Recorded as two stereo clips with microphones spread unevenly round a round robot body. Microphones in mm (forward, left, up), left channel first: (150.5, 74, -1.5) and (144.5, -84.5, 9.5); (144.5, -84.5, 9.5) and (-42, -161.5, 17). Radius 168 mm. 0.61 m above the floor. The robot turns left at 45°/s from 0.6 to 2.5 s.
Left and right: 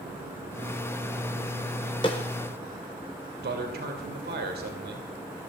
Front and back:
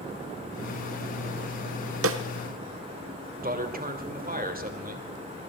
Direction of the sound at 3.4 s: 115° right.